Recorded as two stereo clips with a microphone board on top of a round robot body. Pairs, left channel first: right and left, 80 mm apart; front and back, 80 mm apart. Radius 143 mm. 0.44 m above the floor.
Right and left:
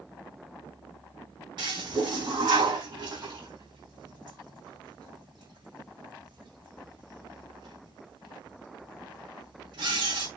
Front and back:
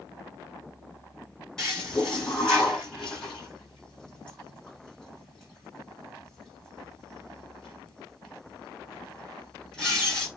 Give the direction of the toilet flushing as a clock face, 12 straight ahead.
9 o'clock.